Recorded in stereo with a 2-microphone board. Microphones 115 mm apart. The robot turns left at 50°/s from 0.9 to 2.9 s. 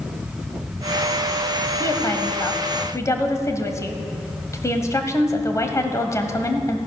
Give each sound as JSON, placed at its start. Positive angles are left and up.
{"t": 1.8, "sound": "a woman speaking", "side_deg": 25, "distance_m": 1.5}